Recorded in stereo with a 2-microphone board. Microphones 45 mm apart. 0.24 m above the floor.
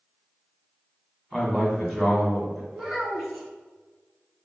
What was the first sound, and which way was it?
A man speaking, 5° right (ahead or behind).